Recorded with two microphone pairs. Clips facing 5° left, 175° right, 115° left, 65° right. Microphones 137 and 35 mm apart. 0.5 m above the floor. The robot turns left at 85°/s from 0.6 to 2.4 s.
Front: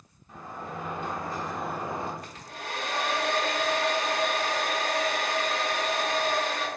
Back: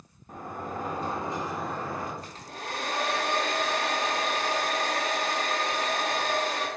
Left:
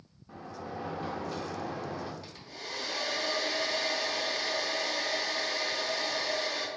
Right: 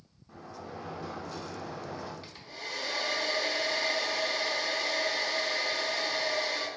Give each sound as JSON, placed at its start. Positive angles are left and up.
{"t": 0.3, "sound": "a sliding door", "azimuth_deg": 180, "distance_m": 0.6}
{"t": 2.2, "sound": "a hair dryer", "azimuth_deg": -130, "distance_m": 0.9}